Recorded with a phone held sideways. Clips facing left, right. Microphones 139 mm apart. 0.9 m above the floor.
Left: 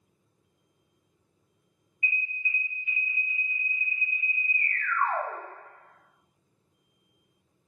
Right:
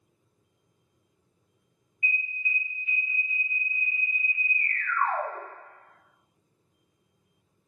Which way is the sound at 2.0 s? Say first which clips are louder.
Right 1 dB; 35° right (ahead or behind).